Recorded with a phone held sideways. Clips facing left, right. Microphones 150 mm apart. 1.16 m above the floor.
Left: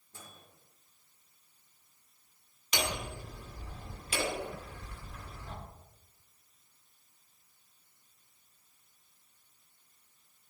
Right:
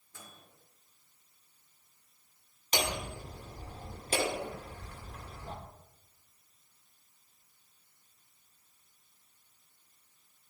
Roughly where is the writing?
No writing in this recording.